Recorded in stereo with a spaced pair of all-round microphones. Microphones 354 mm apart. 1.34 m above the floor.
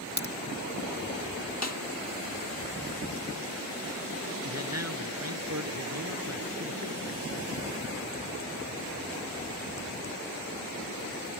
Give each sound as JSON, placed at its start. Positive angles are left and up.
{"t": 0.2, "sound": "a crack", "side_deg": 15}
{"t": 1.6, "sound": "a snare drum", "side_deg": 45}
{"t": 4.4, "sound": "a man speaking", "side_deg": -45}